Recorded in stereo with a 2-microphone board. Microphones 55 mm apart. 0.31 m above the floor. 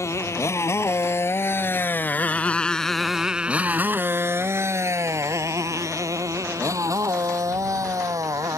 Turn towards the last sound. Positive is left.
turn(degrees=-85)